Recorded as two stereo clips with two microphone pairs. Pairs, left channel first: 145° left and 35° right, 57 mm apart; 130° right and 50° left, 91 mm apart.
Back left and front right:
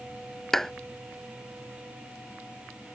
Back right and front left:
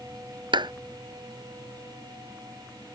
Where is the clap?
65° left.